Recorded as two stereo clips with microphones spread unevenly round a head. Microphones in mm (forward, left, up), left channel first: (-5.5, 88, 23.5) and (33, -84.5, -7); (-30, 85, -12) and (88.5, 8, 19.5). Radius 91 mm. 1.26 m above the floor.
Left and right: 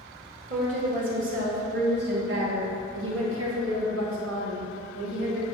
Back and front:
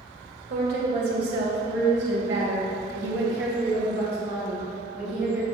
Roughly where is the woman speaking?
Ahead right.